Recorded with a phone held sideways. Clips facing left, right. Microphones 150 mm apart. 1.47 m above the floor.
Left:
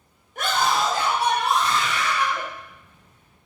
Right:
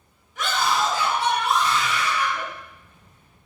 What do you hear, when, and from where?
0.3 s a scream: 55° left (ahead or behind), 6 m; by 2.4 s 65° left (ahead or behind), 7 m